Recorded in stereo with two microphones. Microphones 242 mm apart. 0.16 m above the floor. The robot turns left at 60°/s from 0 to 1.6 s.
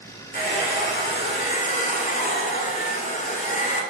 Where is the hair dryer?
125° left, 0.8 m; by 3.8 s 50° left, 0.8 m.